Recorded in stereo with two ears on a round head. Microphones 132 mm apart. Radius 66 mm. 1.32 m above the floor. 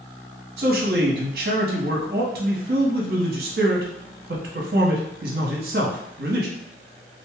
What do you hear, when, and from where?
0.6 s a man speaking: 70° right (ahead or behind), 0.9 m